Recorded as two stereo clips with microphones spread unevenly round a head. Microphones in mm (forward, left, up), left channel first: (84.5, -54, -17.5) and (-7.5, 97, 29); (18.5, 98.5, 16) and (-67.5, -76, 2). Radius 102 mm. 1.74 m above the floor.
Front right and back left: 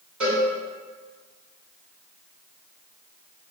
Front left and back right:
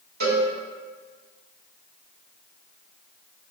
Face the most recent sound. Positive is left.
turn(degrees=-155)